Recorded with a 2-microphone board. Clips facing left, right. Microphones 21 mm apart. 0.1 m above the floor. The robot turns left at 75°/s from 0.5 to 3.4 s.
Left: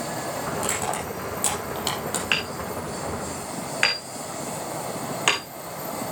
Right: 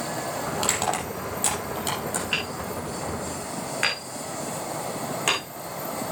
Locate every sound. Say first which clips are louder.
0.6 s crushing: right 3 dB; 60° right (ahead or behind), 4 m; by 2.2 s 45° left (ahead or behind), 4 m
2.3 s hammering: left 2 dB; 70° left (ahead or behind), 3.5 m; by 5.4 s 25° left (ahead or behind), 3.5 m